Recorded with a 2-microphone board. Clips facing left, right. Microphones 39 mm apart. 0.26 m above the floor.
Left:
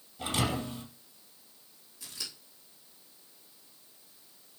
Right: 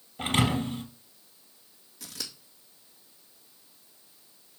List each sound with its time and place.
0.2 s a thud: 60° right (ahead or behind), 3 m
2.0 s scissors: 70° right (ahead or behind), 3 m